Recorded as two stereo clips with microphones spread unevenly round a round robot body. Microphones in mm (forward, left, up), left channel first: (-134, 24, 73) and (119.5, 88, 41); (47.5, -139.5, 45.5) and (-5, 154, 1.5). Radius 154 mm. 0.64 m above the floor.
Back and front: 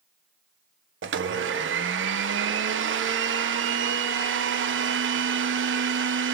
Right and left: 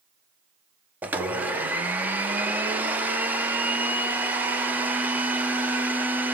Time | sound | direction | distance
1.0 | a blender | 25° left | 0.9 m